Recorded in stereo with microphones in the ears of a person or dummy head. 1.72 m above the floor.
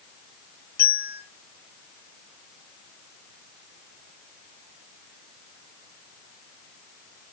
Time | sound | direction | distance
0.8 | a bell | 35° left (ahead or behind) | 1.8 m